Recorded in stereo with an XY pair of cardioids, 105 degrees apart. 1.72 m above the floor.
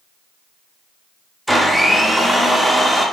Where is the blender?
5° right, 0.6 m.